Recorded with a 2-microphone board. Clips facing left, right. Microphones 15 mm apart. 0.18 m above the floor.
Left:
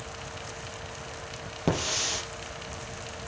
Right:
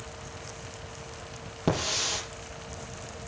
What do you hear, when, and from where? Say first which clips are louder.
1.7 s a hiss: even; 10° left (ahead or behind), 4.5 m